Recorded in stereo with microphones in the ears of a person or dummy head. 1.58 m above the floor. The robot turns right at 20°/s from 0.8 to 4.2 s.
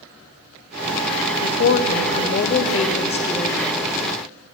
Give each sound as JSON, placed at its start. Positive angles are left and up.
{"t": 1.4, "sound": "a woman speaking", "azimuth_deg": 115, "distance_m": 0.6}